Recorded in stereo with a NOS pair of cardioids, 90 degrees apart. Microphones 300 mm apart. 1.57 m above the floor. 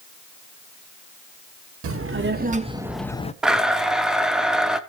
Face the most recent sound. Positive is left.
turn(degrees=0)